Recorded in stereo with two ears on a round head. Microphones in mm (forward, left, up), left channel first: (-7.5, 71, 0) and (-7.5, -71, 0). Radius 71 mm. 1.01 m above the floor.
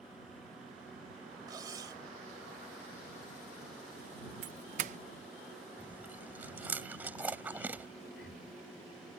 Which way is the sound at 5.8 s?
10° right (ahead or behind).